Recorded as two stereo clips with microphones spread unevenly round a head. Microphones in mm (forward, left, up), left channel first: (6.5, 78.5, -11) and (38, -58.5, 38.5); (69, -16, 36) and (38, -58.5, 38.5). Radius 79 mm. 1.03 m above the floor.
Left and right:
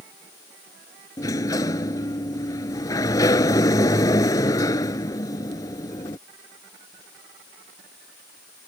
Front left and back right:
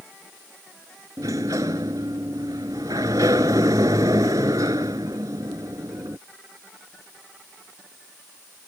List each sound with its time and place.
1.2 s a sliding door: 175° left